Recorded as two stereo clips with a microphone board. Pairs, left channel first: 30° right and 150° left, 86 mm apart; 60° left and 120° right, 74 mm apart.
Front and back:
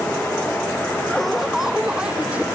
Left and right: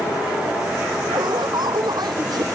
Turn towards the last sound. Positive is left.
turn(degrees=-140)